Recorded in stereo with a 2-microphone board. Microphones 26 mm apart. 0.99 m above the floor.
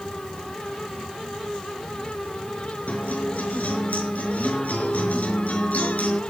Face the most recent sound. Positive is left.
turn(degrees=80)